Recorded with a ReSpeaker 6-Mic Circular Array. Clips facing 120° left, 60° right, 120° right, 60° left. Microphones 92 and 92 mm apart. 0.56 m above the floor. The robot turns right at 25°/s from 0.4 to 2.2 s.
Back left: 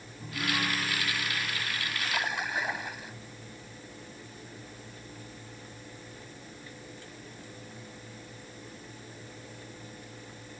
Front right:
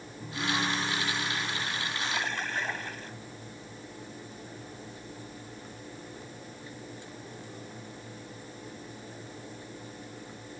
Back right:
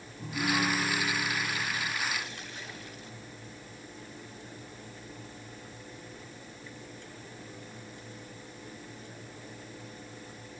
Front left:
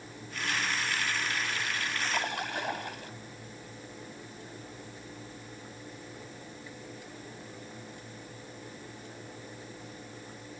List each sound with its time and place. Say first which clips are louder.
0.2 s a piano: front right 1 dB, back right 5 dB; 145° right; by 1.9 s 105° right
2.0 s a splash: back left 3 dB, front left 5 dB; 40° left